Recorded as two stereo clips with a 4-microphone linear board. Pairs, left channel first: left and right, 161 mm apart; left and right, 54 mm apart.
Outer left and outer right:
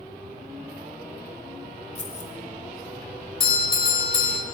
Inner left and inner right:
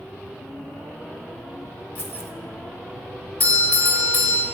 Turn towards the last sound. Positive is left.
turn(degrees=35)  # may be behind; listen again after turning